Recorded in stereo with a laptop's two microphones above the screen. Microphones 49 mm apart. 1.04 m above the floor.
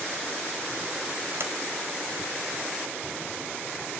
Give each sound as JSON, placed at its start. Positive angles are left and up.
{"t": 1.4, "sound": "a sliding door", "side_deg": -60, "distance_m": 3.5}